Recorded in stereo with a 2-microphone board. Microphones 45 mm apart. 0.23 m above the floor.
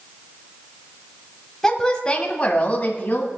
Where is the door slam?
No door slam in this recording.